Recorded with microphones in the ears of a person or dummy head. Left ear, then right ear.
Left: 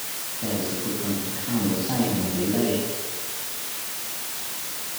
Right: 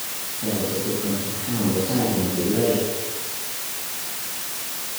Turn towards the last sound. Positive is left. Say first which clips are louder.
# right 3 dB
turn(degrees=55)  # may be behind; listen again after turning